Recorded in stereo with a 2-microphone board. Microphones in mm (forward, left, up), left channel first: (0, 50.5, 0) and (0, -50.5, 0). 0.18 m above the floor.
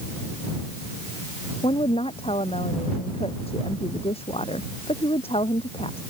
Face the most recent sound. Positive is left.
turn(degrees=70)  # may be behind; listen again after turning